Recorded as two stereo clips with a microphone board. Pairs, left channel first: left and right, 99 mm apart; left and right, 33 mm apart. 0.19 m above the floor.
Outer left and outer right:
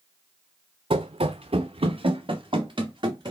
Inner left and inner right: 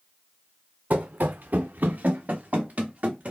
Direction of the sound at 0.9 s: 65° right (ahead or behind).